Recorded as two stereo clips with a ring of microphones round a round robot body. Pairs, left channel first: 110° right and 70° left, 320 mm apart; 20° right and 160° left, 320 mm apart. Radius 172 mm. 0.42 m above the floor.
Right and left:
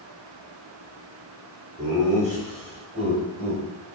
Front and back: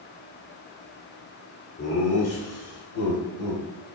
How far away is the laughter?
About 1.9 m.